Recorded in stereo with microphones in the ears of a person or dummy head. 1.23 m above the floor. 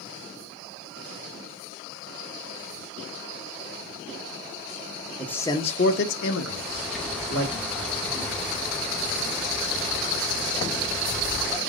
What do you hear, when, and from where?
5.2 s a man speaking: 5° left (ahead or behind), 0.7 m; by 7.5 s 60° left (ahead or behind), 1.4 m
6.5 s a bird: centre (ahead or behind), 0.6 m